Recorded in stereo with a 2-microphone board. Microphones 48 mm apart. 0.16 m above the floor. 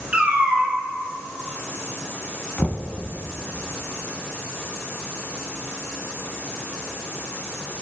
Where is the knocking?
25° left (ahead or behind), 0.8 m.